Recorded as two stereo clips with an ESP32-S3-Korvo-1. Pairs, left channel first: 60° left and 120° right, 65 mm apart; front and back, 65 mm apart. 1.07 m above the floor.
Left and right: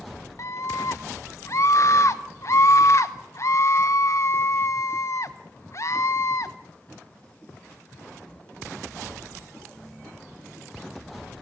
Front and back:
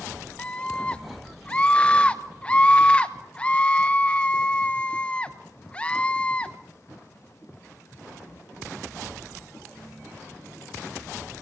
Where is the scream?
65° left, 0.9 m.